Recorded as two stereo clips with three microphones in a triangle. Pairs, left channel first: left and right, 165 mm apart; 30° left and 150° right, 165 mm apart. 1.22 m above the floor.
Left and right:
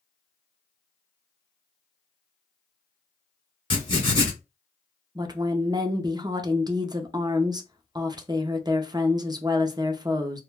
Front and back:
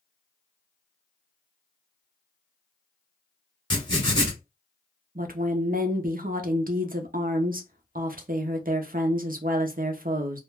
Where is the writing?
60° left, 1.1 m.